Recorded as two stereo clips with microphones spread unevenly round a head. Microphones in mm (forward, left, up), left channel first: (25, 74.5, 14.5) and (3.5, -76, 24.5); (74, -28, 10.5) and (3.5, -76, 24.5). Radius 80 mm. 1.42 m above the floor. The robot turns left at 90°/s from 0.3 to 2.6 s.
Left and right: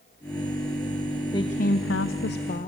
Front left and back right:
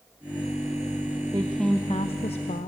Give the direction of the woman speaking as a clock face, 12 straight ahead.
7 o'clock.